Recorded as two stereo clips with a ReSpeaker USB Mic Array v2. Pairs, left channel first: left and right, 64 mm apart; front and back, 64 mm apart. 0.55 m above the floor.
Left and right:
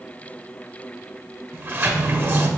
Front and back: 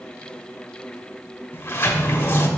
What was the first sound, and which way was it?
A sliding door, 45° right.